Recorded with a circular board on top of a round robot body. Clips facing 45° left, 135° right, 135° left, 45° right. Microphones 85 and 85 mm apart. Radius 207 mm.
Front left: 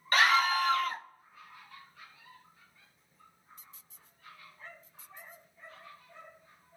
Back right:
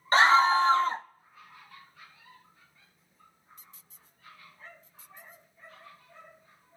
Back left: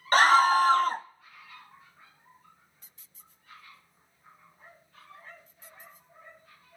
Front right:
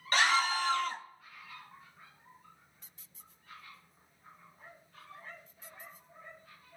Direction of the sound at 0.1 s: 170° left.